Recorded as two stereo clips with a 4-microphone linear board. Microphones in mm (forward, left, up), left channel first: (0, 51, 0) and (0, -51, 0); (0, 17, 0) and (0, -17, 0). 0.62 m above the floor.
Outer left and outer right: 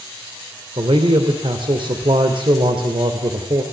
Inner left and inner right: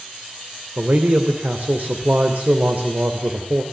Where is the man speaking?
55° right (ahead or behind), 2.5 m.